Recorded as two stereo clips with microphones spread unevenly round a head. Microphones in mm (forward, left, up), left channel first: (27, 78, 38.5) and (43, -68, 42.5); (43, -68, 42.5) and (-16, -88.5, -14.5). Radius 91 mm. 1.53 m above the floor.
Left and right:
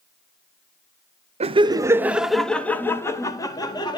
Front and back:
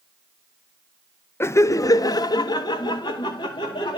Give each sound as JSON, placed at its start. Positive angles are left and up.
{"t": 1.4, "sound": "laughter", "azimuth_deg": -35, "distance_m": 0.7}